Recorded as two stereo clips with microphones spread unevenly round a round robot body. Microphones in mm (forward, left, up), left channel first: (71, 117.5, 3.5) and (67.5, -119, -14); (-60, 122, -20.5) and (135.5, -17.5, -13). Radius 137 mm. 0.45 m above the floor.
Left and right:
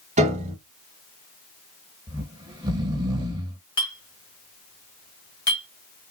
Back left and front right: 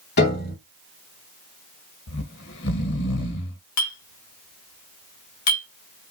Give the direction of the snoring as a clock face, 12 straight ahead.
5 o'clock.